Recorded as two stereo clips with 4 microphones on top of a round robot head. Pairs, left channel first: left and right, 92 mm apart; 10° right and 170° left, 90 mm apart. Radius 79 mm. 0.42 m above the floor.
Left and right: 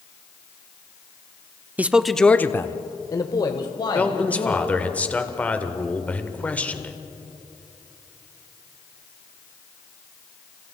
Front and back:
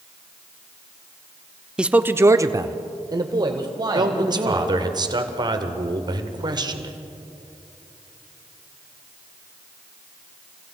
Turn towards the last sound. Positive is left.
turn(degrees=160)